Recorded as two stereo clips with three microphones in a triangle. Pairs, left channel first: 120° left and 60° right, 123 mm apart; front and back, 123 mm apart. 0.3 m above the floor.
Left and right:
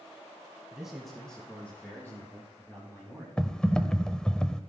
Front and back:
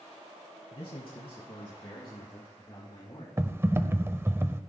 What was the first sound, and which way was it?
A man speaking, 20° left.